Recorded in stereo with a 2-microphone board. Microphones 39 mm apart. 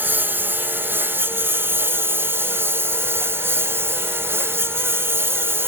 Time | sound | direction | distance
0.0 | a lawn mower | 55° right (ahead or behind) | ?